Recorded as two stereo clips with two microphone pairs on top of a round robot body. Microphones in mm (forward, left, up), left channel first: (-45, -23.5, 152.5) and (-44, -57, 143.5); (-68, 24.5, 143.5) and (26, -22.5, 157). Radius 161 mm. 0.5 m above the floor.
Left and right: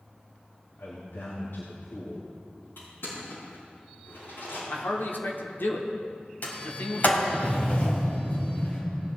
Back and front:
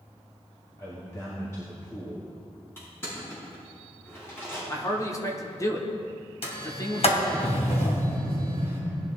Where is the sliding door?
130° left, 3 m.